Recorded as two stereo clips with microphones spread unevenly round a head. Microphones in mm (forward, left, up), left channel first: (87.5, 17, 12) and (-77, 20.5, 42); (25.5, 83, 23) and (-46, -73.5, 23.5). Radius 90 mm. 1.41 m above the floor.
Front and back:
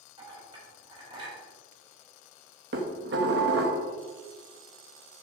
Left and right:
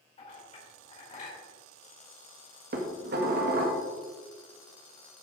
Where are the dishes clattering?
150° right, 1.6 m.